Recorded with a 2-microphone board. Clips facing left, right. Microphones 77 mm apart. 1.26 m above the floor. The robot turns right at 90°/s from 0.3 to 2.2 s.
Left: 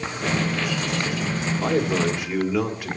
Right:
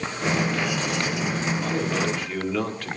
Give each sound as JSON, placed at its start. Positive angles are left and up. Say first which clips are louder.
{"t": 1.6, "sound": "a man speaking", "louder": "left 7 dB", "azimuth_deg": 115, "distance_m": 2.5}